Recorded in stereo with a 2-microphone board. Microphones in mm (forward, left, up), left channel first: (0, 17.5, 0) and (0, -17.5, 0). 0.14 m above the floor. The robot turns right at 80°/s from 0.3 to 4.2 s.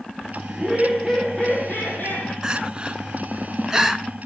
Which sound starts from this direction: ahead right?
Laughter, at 0.5 s.